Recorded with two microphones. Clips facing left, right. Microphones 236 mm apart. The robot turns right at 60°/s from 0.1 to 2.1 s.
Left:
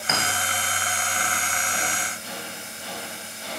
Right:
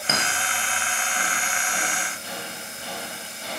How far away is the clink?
About 0.8 m.